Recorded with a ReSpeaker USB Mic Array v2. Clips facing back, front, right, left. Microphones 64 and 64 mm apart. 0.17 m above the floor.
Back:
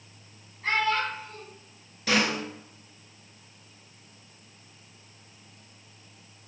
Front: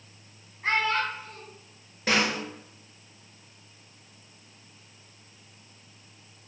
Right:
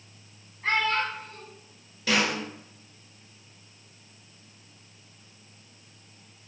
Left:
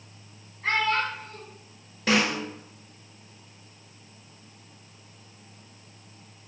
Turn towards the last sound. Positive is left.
turn(degrees=45)